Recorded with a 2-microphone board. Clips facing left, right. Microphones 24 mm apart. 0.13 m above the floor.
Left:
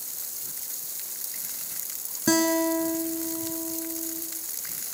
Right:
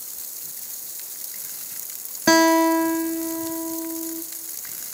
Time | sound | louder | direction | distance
2.3 | a guitar | right 7 dB | 35° right (ahead or behind) | 0.9 m